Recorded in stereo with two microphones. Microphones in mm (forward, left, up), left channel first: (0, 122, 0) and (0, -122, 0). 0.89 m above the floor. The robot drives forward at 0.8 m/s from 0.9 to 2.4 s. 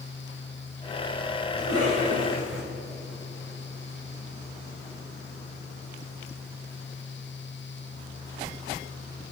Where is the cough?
80° right, 5 m; by 2.6 s 85° right, 5 m.